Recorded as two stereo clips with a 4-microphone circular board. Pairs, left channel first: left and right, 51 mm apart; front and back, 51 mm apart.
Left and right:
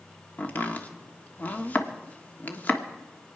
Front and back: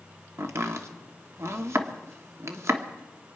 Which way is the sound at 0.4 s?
145° left.